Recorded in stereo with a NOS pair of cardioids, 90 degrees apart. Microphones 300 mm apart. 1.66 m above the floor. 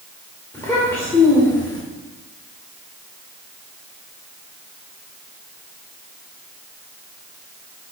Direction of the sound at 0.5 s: 10° left.